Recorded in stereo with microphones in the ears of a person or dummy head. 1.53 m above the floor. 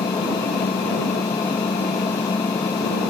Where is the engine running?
15° left (ahead or behind).